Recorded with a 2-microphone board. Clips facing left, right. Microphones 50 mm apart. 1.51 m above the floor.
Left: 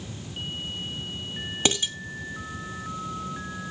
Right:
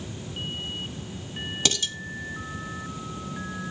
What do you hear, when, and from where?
1.6 s dishes clattering: 20° left (ahead or behind), 1.8 m